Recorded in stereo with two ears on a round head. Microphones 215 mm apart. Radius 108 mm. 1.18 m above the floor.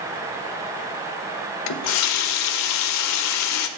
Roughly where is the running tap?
Left.